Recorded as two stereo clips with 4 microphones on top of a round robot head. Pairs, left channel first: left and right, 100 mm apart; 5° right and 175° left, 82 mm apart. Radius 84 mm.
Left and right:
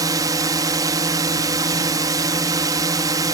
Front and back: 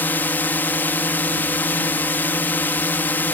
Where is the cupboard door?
No cupboard door in this recording.